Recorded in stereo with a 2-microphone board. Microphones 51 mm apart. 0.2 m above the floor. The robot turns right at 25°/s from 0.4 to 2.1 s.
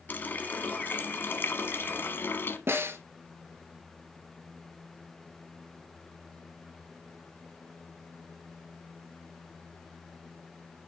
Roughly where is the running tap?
Ahead left.